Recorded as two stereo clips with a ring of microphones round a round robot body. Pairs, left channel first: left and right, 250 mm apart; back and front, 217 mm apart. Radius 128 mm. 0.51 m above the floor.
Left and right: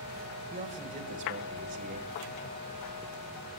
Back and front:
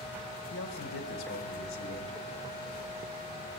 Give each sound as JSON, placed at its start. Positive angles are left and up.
{"t": 0.5, "sound": "a man speaking", "azimuth_deg": -150, "distance_m": 1.8}